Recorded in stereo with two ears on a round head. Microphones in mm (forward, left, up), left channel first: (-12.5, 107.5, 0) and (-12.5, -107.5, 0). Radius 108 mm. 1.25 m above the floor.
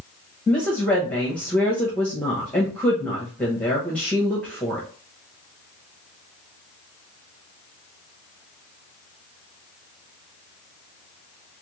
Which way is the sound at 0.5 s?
5° left (ahead or behind).